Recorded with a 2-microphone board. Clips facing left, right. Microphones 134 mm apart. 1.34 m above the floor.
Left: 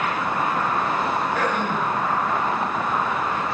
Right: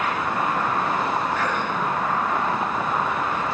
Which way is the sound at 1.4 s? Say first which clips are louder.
Left 2 dB; 75° left (ahead or behind).